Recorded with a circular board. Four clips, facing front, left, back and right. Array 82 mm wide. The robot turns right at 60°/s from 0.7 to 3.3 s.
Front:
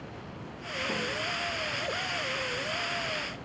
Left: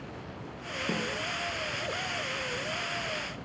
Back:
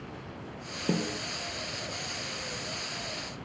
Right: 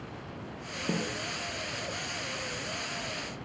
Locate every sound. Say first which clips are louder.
0.9 s a snare drum: right 1 dB, back 4 dB; 175° right, 1.5 m; by 1.2 s 155° right, 1.5 m